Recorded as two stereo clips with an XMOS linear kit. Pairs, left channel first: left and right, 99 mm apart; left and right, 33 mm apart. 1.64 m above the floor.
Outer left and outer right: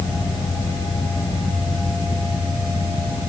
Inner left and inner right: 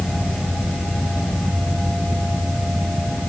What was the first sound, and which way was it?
Only background noise.